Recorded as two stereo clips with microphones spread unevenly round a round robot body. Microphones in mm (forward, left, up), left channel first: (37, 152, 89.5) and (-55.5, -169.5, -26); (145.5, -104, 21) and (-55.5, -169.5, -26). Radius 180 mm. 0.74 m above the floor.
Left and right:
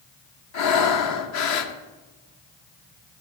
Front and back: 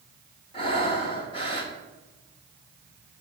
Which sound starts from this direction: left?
Breathing, at 0.5 s.